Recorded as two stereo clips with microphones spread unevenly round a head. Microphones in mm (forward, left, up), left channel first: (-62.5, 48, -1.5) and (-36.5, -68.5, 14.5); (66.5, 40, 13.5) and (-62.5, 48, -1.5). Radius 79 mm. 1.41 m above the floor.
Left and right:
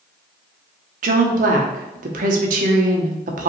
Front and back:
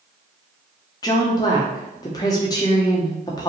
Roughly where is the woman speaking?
Right.